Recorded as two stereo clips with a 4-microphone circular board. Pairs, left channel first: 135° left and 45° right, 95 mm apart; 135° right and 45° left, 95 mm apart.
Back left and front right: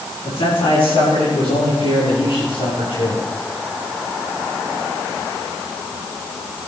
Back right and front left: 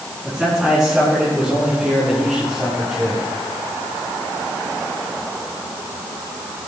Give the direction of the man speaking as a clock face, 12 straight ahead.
8 o'clock.